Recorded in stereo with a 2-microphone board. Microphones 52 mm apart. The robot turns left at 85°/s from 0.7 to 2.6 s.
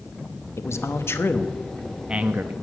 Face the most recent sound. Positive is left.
turn(degrees=-60)